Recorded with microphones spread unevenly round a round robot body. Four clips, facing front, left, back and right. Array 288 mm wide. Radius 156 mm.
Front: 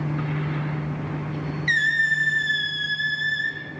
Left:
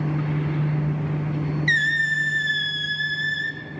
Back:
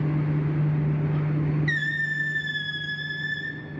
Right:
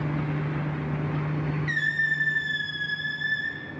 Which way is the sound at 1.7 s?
105° left.